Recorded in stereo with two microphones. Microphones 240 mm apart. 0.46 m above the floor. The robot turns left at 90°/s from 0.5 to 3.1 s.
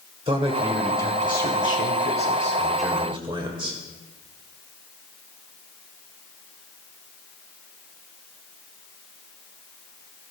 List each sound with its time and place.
0.3 s a man speaking: 150° right, 1.5 m; by 3.8 s 25° right, 1.5 m